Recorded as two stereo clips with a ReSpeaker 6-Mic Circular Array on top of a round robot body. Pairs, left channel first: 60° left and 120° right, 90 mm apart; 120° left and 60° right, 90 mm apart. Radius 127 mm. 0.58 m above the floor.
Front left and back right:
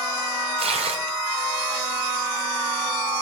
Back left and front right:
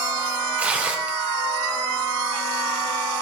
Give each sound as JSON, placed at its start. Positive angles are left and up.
{"t": 0.6, "sound": "tearing paper", "azimuth_deg": -135, "distance_m": 0.8}